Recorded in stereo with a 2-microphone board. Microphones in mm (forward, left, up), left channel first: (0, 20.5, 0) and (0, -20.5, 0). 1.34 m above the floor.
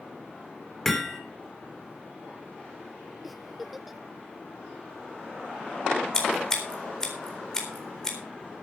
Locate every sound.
0.8 s hammering: 10° left (ahead or behind), 3 m
3.2 s a giggle: 5° right (ahead or behind), 0.6 m
6.1 s scissors: 15° left (ahead or behind), 4 m